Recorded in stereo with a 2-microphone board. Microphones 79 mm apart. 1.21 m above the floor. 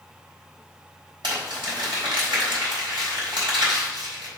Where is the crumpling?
85° right, 4 m.